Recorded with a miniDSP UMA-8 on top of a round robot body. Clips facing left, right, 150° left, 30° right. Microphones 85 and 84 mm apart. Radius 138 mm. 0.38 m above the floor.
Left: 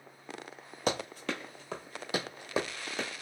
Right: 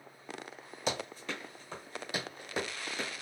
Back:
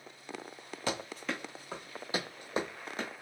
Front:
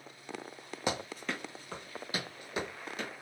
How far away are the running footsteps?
About 0.6 m.